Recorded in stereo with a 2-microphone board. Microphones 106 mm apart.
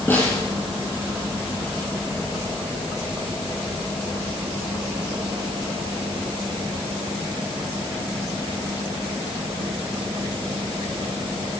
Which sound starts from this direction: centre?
A snare drum, at 0.1 s.